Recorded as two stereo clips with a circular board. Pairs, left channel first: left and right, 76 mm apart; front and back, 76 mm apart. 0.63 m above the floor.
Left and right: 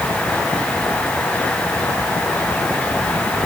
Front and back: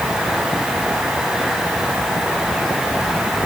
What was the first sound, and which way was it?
Only background noise.